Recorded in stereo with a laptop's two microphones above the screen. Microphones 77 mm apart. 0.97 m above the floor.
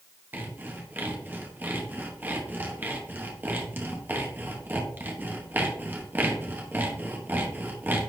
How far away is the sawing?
About 0.9 m.